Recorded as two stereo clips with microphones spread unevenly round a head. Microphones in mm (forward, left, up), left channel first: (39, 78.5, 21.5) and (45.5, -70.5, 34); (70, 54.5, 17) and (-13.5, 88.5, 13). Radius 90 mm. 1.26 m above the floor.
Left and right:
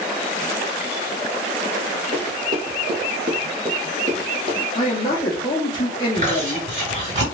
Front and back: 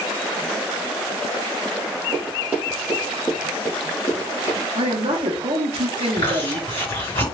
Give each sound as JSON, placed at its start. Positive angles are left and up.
{"t": 2.1, "sound": "running footsteps", "azimuth_deg": -150, "distance_m": 1.7}
{"t": 4.8, "sound": "a man speaking", "azimuth_deg": 155, "distance_m": 1.0}
{"t": 6.2, "sound": "chewing", "azimuth_deg": -60, "distance_m": 2.0}